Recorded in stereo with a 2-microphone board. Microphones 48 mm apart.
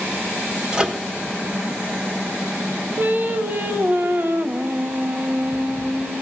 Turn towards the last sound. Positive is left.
turn(degrees=-45)  # may be behind; listen again after turning